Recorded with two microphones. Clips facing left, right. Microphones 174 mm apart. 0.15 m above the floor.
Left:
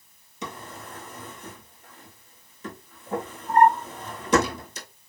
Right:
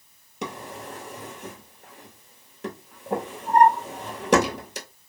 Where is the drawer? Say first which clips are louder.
Right 4 dB; 75° right (ahead or behind), 1.0 m.